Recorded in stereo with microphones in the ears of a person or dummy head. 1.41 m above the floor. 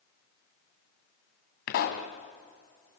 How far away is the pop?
About 2.5 m.